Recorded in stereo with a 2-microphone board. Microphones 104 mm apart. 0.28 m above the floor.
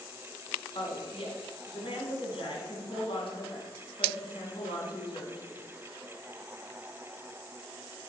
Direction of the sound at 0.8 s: 60° left (ahead or behind).